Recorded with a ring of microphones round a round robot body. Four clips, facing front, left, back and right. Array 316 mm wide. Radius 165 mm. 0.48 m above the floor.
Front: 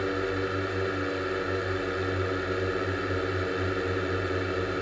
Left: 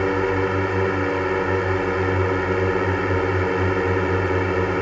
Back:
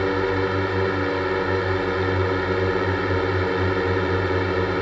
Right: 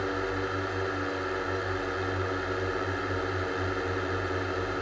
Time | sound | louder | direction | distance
0.0 | a drone | left 10 dB, back 7 dB | 125° left | ?